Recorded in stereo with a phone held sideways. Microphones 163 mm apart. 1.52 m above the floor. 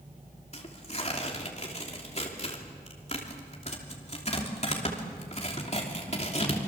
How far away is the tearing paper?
About 3 m.